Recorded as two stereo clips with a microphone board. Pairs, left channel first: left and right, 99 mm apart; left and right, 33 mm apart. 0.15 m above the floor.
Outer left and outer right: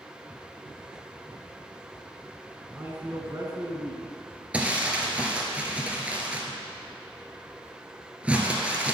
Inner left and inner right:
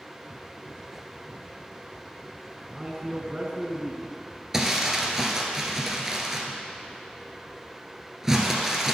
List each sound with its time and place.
2.7 s a man speaking: 15° right (ahead or behind), 1.5 m; by 4.1 s 50° right (ahead or behind), 1.9 m
4.5 s crumpling: 15° right (ahead or behind), 1.2 m